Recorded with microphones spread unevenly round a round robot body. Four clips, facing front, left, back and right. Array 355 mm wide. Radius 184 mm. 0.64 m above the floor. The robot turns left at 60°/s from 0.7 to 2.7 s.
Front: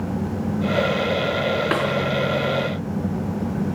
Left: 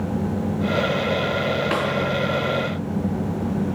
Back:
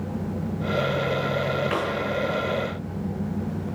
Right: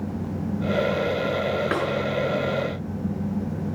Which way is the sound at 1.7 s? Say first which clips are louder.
Left 2 dB, front 4 dB; 10° right.